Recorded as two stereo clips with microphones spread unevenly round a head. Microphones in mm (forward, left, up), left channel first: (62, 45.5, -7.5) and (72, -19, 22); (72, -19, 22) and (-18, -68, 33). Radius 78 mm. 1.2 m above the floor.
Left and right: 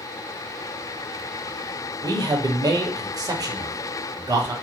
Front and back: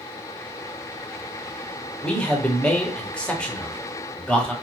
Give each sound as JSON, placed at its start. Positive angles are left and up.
{"t": 2.0, "sound": "a man speaking", "azimuth_deg": -50, "distance_m": 1.0}